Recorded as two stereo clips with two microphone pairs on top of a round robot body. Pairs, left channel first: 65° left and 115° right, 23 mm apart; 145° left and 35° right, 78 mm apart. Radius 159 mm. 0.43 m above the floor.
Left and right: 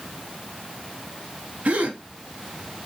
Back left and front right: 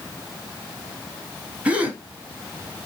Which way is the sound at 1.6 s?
110° right.